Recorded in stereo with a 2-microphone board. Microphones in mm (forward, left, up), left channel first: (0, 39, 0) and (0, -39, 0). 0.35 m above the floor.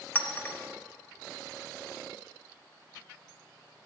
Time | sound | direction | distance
0.1 | a clink | 25° left (ahead or behind) | 0.6 m